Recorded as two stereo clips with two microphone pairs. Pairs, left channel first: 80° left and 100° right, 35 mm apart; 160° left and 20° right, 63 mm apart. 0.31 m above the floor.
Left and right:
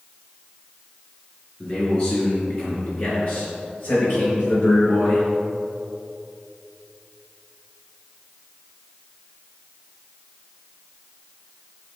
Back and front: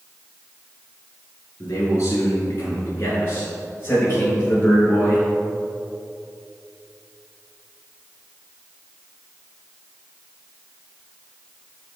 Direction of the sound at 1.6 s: 120° left.